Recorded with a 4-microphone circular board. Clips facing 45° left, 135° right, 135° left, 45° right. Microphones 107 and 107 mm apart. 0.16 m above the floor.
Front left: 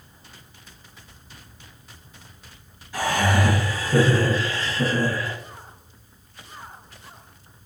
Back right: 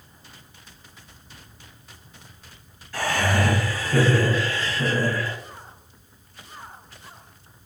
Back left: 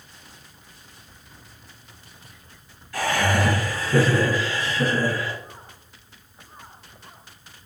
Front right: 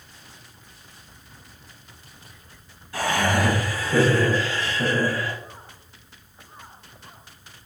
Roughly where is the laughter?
Ahead.